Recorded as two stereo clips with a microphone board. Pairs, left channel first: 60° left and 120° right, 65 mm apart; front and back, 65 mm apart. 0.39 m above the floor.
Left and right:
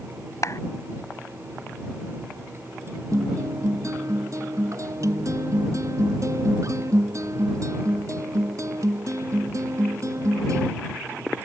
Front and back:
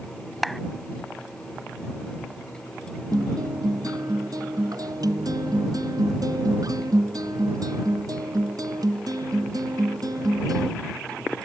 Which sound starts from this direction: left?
A clap, at 0.4 s.